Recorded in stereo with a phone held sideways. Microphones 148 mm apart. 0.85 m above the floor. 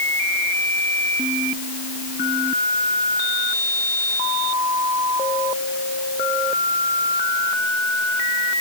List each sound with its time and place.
Only background noise.